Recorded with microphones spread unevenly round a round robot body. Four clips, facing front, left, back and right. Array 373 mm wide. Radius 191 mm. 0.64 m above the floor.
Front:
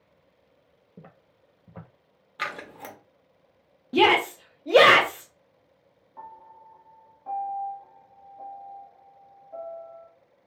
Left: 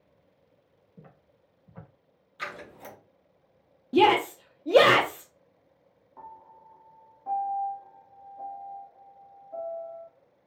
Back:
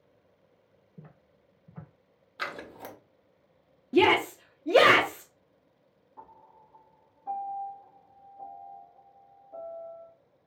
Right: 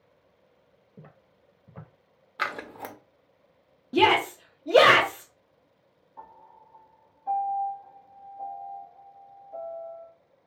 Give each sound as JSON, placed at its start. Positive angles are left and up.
{"t": 1.0, "sound": "footsteps", "azimuth_deg": -35, "distance_m": 1.0}
{"t": 2.4, "sound": "scissors", "azimuth_deg": -60, "distance_m": 0.8}
{"t": 3.9, "sound": "a shout", "azimuth_deg": 55, "distance_m": 0.8}
{"t": 6.2, "sound": "a piano", "azimuth_deg": 65, "distance_m": 1.5}